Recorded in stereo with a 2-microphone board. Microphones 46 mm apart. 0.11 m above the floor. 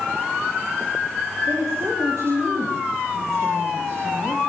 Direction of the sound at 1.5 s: 80° right.